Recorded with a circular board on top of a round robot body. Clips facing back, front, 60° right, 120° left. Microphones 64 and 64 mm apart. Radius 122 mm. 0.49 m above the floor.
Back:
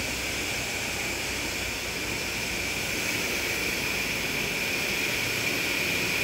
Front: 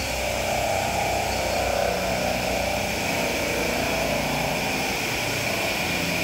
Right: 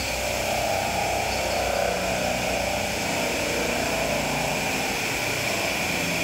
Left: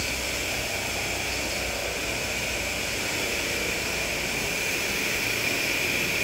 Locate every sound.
0.0 s a helicopter: 15° right; by 6.2 s 20° right